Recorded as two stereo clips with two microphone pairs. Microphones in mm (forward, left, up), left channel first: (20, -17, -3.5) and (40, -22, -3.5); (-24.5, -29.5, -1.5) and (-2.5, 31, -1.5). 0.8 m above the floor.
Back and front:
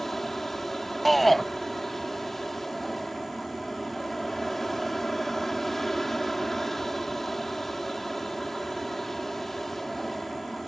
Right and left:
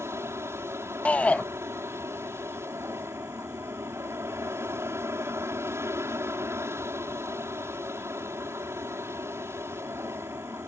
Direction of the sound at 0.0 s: 95° left.